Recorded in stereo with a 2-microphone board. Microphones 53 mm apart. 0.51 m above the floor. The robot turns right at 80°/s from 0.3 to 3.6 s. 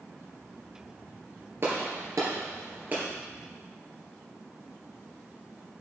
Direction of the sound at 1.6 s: 45° right (ahead or behind).